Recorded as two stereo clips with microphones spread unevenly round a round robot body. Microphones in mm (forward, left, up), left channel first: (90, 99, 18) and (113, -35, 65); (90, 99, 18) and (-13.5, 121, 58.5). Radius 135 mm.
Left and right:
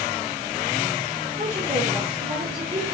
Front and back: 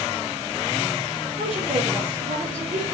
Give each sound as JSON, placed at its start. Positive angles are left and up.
{"t": 1.4, "sound": "a woman speaking", "azimuth_deg": -135, "distance_m": 3.0}